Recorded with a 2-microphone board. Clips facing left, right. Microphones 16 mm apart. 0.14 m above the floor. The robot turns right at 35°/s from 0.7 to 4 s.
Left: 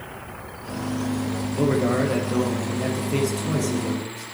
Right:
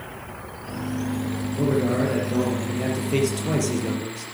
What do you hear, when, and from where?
1.5 s a man speaking: 140° left, 4 m; by 4.2 s 135° right, 4 m